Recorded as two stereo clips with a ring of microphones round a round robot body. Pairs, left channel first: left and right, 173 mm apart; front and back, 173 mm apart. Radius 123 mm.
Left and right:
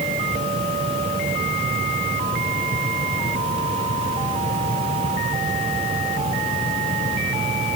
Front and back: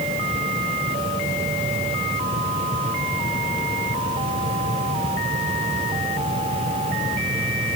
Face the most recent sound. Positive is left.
No sound to turn to.